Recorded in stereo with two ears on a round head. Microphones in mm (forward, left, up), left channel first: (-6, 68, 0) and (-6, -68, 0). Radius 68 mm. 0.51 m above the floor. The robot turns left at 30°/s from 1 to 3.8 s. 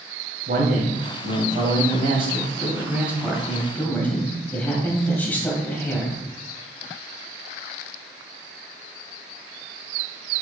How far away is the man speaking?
About 2.5 m.